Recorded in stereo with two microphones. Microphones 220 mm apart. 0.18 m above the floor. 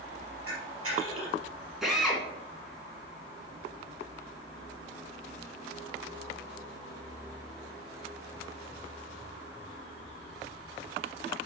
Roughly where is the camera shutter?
Right.